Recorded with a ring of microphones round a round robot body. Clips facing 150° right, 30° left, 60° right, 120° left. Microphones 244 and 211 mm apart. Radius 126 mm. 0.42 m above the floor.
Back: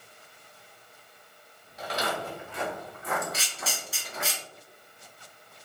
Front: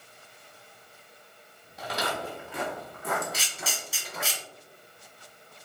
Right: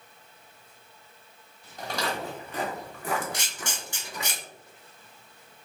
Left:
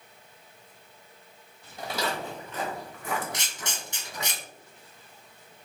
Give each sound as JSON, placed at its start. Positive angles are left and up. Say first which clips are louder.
{"t": 1.8, "sound": "footsteps", "louder": "back 1 dB, even", "azimuth_deg": 40, "distance_m": 1.1}
{"t": 3.3, "sound": "a camera shutter", "louder": "even, right 1 dB", "azimuth_deg": 65, "distance_m": 1.7}